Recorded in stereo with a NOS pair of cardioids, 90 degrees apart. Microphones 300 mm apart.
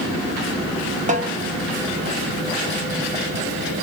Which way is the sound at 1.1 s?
25° right.